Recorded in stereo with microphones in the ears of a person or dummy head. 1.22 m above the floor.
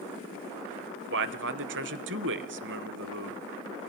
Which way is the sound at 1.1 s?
60° right (ahead or behind).